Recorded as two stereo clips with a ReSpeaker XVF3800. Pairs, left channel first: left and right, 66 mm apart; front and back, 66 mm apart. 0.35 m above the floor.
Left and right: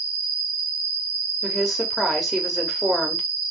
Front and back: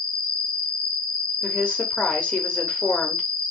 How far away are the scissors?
I don't hear scissors.